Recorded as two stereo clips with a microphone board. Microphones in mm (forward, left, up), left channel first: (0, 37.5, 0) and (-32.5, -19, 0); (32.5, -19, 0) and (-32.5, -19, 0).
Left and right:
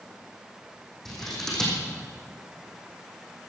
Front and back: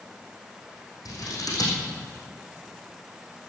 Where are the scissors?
20° right, 4.5 m.